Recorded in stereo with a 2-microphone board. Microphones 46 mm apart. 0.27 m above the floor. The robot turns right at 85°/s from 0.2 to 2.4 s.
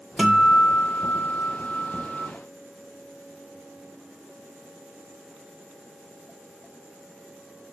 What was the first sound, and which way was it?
A guitar, straight ahead.